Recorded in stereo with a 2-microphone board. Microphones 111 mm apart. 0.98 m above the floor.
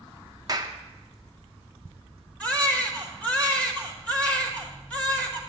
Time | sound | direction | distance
0.5 | a clap | 35° right (ahead or behind) | 0.7 m
2.4 | a baby crying | 10° left (ahead or behind) | 1.3 m